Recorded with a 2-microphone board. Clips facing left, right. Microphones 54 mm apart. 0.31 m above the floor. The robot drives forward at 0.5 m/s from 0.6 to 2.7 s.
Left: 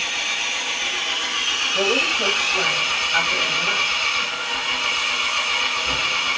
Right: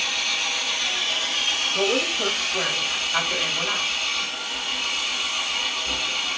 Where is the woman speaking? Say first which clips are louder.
Left 3 dB; 10° left (ahead or behind), 1.1 m.